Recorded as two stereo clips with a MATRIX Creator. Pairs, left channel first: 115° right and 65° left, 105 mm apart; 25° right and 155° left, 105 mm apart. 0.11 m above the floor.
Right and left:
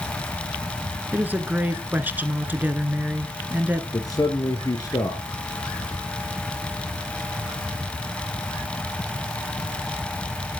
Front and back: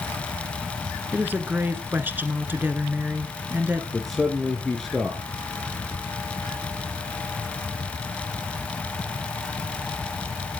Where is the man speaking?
110° right, 1.6 m.